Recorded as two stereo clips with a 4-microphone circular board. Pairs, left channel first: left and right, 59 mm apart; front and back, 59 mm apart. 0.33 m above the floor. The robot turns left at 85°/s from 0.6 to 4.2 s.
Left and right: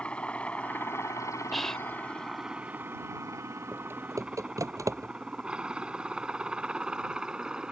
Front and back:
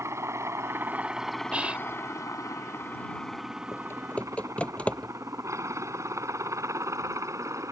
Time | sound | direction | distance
0.0 | a helicopter | 155° left | ?
1.5 | whispering | straight behind | ?
3.7 | typing on a keyboard | 25° right | ?